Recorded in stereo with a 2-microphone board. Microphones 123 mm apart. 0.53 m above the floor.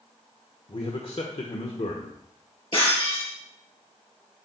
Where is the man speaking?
50° left (ahead or behind), 1.3 m.